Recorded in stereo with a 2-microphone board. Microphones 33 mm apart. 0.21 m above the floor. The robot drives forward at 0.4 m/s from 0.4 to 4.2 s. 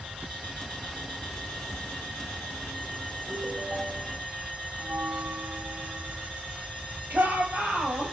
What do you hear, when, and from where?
3.3 s a ringtone: 75° right (ahead or behind), 4.5 m; by 4.2 s 80° right, 4 m
4.8 s a bell: 65° right (ahead or behind), 0.6 m
7.1 s a shout: 75° right (ahead or behind), 7 m